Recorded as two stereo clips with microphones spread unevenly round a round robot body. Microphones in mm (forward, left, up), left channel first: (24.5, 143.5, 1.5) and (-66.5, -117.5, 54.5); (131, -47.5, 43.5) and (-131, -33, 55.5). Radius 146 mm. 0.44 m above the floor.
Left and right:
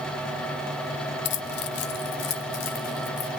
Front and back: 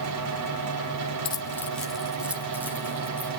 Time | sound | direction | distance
1.2 | keys jangling | 60° left | 0.9 m